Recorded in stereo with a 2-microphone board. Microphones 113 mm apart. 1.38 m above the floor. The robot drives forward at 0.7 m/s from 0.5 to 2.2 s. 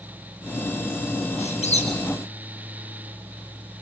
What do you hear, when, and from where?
1.4 s a squeak: 70° left (ahead or behind), 4 m